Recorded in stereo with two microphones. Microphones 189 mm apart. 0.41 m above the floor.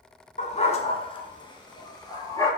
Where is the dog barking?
40° left (ahead or behind), 1.1 m; by 2.5 s 20° left (ahead or behind), 2.5 m.